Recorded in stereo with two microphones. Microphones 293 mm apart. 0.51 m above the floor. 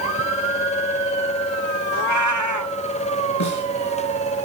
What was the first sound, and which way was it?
A cat meowing, 75° right (ahead or behind).